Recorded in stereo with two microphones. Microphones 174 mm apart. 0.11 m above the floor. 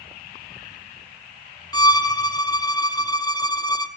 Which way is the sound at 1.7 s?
25° left (ahead or behind).